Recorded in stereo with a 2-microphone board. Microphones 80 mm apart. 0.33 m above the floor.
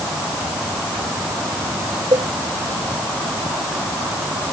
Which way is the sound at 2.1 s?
70° right (ahead or behind).